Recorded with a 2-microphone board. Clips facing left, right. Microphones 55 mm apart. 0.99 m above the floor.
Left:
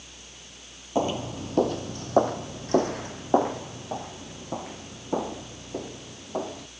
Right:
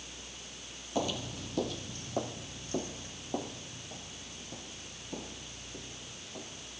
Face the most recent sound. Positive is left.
turn(degrees=80)